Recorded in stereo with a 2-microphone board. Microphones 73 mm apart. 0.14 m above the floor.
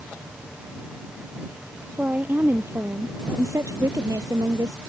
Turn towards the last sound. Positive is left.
turn(degrees=-65)  # may be behind; listen again after turning